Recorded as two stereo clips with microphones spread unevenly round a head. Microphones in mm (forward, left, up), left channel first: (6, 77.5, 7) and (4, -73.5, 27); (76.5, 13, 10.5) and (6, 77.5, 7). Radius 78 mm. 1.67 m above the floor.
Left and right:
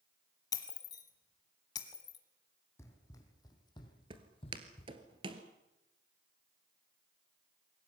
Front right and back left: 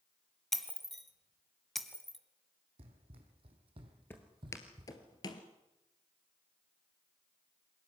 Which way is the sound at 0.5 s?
35° left.